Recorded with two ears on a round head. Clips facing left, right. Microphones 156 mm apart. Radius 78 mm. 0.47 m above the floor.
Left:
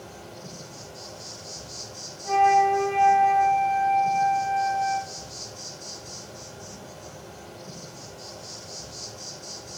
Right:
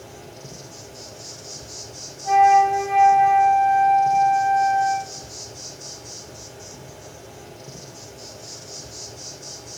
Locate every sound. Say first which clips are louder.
0.0 s an insect: right 1 dB; 25° right (ahead or behind), 5.5 m
2.2 s a flute: right 5 dB; 35° right (ahead or behind), 6 m